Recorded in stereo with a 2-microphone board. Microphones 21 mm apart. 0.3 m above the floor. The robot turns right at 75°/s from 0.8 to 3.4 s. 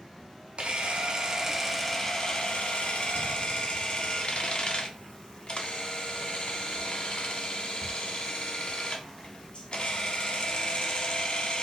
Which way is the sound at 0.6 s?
65° right.